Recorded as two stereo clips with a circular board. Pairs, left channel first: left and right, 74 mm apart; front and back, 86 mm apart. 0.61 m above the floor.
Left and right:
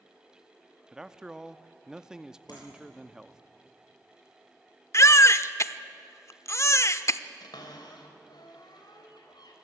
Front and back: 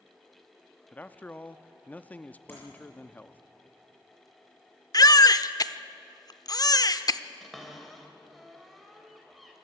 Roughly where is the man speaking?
Ahead right.